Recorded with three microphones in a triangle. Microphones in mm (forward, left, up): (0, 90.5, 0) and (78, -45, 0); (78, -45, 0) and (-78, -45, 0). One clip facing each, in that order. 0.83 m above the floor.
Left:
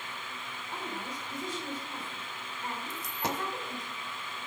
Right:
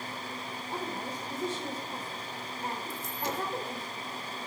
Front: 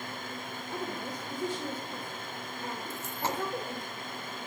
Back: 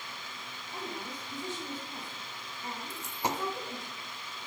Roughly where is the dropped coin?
Left.